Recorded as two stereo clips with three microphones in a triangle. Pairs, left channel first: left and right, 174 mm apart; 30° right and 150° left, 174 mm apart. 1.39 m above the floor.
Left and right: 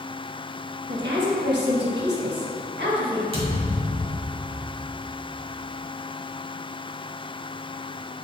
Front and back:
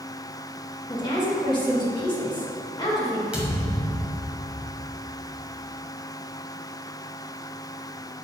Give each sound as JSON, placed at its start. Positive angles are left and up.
{"t": 0.9, "sound": "a woman speaking", "azimuth_deg": -95, "distance_m": 1.7}
{"t": 3.3, "sound": "a thud", "azimuth_deg": -130, "distance_m": 1.7}